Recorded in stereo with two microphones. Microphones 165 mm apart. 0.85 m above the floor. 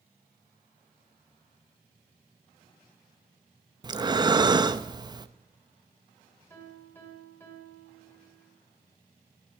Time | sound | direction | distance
3.8 | breathing | 25° right (ahead or behind) | 0.5 m
6.5 | a piano | 15° left (ahead or behind) | 2.5 m